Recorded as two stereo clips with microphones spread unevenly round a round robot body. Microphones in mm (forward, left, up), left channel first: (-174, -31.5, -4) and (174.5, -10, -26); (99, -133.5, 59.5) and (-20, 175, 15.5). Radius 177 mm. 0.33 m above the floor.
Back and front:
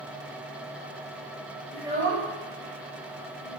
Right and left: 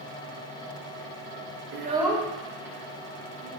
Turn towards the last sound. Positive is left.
turn(degrees=-20)